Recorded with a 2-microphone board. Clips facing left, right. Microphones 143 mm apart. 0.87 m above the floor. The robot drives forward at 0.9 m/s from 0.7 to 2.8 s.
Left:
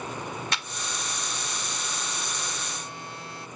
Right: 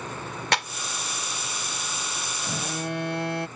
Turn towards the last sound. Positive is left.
turn(degrees=-70)  # may be behind; listen again after turning